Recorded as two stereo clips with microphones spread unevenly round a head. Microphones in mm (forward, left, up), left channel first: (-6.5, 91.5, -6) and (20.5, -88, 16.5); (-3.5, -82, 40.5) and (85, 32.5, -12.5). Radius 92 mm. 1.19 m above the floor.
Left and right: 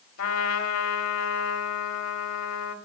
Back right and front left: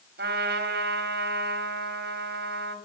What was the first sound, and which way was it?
A trumpet, 85° left.